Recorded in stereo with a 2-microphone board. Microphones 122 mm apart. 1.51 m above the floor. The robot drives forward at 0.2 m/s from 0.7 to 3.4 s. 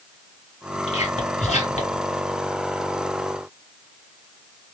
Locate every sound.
0.9 s whispering: 60° left (ahead or behind), 1.3 m; by 2.0 s 70° left (ahead or behind), 1.2 m